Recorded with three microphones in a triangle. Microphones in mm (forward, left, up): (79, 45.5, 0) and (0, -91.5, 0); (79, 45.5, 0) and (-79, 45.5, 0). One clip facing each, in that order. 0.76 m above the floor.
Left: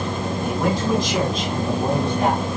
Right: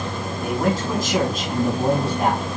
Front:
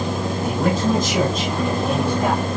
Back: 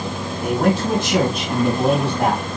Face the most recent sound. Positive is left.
turn(degrees=-170)